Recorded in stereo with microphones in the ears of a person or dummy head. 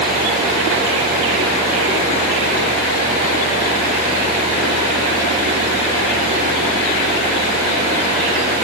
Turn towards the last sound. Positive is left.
No sound to turn to.